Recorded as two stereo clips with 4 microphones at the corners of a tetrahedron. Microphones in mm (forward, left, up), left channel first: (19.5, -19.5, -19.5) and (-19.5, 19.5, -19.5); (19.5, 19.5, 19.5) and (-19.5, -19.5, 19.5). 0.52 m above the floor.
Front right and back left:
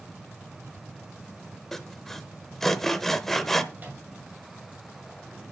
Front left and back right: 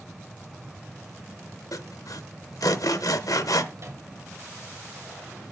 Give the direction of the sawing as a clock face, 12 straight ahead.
11 o'clock.